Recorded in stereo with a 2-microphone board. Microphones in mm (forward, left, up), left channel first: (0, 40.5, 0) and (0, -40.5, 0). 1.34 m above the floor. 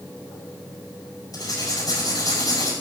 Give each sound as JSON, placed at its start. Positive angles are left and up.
{"t": 1.3, "sound": "writing", "side_deg": 55, "distance_m": 6.5}